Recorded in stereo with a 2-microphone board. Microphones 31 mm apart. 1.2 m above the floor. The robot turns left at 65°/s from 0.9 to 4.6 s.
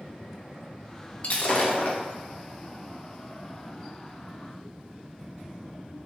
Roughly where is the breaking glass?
Behind left.